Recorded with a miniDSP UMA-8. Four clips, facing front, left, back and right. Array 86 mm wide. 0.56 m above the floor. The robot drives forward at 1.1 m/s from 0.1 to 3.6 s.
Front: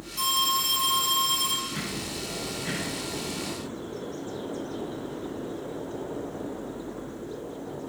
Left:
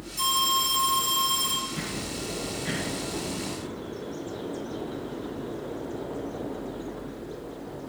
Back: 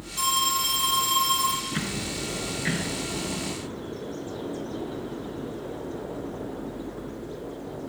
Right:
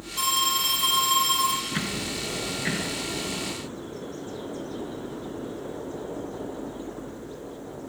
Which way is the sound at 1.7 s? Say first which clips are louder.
Right 3 dB, back 3 dB; 120° right.